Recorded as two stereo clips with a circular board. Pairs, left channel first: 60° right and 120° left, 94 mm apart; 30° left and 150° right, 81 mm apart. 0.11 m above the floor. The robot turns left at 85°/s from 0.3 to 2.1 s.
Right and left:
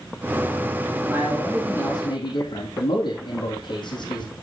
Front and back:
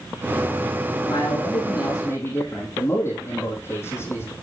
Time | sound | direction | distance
1.1 | a man speaking | 60° left | 4 m